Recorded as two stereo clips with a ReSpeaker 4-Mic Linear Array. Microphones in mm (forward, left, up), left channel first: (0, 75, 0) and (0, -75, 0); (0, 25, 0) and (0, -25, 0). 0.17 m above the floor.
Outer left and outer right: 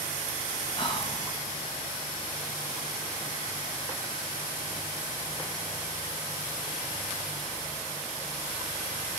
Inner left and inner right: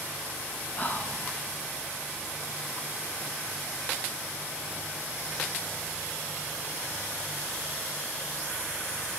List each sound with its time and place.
0.8 s whispering: 35° left (ahead or behind), 2 m